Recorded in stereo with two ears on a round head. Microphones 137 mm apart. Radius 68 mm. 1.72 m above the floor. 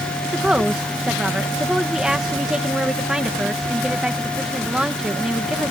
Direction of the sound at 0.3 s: 5° right (ahead or behind).